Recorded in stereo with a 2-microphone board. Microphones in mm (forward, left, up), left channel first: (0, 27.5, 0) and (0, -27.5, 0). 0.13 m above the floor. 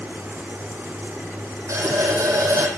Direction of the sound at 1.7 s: 75° right (ahead or behind).